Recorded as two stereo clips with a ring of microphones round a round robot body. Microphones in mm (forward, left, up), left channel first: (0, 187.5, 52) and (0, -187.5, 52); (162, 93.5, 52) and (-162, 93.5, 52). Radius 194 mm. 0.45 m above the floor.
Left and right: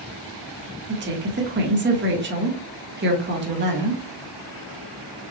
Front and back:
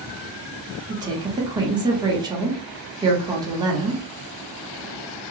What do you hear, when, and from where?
0.9 s a woman speaking: 115° right, 1.3 m